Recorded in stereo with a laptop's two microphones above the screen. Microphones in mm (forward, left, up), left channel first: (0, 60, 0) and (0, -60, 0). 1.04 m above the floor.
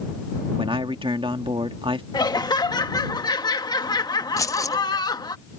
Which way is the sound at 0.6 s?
45° right (ahead or behind).